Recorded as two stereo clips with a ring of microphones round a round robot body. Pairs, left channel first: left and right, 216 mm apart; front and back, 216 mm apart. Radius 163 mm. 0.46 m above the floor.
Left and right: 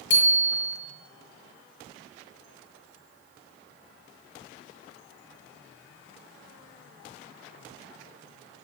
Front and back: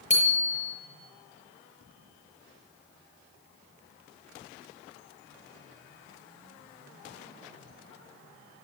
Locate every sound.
0.1 s a bicycle bell: 60° left, 7.5 m